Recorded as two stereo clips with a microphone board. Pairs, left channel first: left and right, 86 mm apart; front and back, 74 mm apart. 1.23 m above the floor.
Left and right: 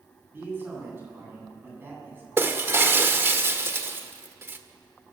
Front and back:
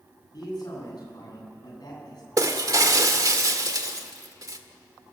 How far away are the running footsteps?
No running footsteps in this recording.